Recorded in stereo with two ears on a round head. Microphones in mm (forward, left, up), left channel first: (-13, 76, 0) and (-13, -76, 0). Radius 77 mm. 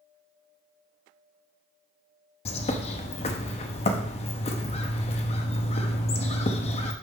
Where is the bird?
35° left (ahead or behind), 0.8 m.